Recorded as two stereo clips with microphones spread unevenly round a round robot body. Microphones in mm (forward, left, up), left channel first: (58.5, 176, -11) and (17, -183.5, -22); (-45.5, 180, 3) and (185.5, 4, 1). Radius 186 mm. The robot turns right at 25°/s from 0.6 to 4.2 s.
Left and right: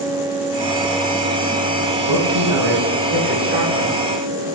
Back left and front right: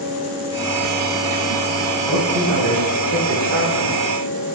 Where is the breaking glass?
I don't hear breaking glass.